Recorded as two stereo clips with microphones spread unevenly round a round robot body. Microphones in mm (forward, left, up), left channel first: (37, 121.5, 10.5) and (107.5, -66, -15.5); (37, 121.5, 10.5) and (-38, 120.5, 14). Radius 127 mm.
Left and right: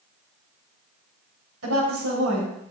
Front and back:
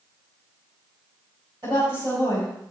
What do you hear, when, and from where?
1.6 s a woman speaking: 110° right, 3.5 m